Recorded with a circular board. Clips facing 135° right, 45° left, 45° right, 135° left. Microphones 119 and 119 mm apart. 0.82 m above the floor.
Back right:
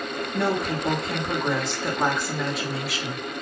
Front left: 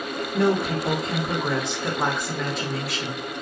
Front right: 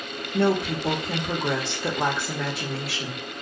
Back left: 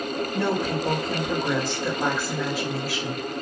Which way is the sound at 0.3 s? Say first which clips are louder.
Front left 4 dB, front right 4 dB; 45° right.